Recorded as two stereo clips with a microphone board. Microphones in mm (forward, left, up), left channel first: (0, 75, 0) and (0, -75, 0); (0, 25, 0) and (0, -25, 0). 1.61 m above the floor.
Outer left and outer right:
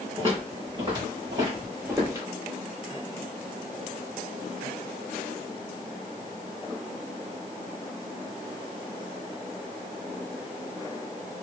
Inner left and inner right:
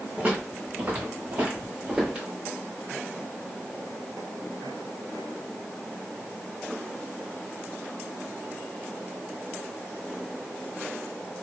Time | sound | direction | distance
0.2 | footsteps | 35° right (ahead or behind) | 1.8 m